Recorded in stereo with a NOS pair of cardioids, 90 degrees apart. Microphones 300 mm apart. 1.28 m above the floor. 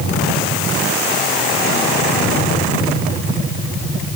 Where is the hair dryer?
No hair dryer in this recording.